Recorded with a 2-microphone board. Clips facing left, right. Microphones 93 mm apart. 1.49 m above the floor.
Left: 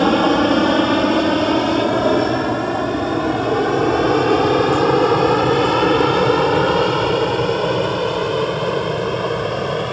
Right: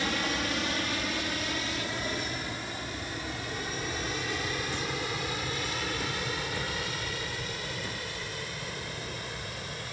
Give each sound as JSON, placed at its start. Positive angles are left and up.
{"t": 0.0, "sound": "an aircraft", "side_deg": 65}